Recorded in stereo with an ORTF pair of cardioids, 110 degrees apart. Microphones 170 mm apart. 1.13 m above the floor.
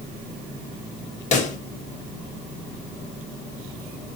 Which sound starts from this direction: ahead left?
A pop, at 1.3 s.